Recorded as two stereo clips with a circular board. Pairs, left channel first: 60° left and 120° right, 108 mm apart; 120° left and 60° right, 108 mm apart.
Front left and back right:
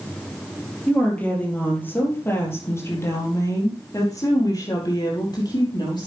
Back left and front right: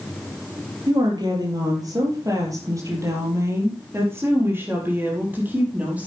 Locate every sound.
0.9 s a woman speaking: 15° right, 4 m; by 6.1 s 15° left, 5.5 m